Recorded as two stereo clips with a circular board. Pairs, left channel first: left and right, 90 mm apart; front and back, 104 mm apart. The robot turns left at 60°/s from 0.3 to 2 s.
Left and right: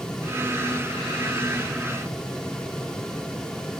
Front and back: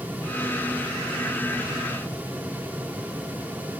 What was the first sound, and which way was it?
Only background noise.